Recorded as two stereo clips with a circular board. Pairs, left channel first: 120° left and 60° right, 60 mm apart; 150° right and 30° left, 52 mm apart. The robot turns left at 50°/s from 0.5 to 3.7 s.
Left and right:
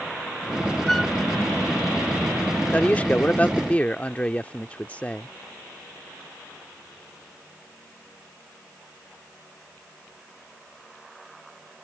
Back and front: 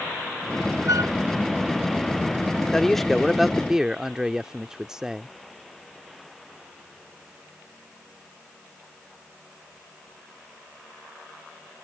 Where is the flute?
35° left; by 1.1 s 20° left.